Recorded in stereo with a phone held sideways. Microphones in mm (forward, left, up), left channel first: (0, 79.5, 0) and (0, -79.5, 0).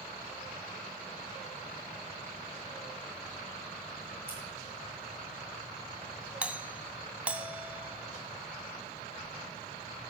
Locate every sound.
4.3 s scissors: 15° right (ahead or behind), 5.5 m
6.4 s a doorbell: 10° right (ahead or behind), 0.6 m